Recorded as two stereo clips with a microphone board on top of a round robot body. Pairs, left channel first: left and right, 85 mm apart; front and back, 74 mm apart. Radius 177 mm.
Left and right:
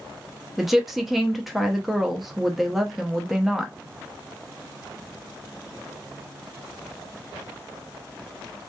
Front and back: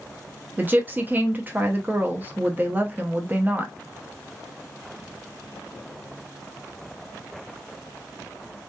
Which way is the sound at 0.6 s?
175° right.